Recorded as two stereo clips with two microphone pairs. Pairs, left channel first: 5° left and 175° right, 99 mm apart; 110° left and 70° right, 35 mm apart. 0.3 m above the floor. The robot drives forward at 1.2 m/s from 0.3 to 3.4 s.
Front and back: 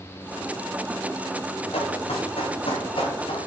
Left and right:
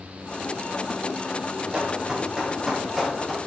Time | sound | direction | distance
1.7 | running footsteps | straight ahead | 3.5 m